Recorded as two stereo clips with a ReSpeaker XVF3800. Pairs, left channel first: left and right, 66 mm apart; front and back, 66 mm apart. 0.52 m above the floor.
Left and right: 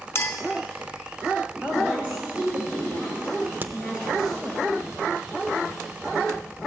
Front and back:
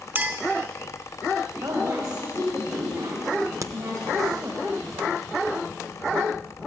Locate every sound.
0.1 s a clink: 130° left, 0.8 m
1.6 s a woman speaking: 155° right, 2.5 m
3.6 s a crack: 145° right, 0.5 m